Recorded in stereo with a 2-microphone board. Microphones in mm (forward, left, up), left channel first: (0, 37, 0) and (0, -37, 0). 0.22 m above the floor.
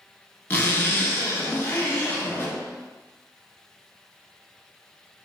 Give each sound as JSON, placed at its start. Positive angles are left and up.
{"t": 0.5, "sound": "a zipper", "side_deg": 30, "distance_m": 1.1}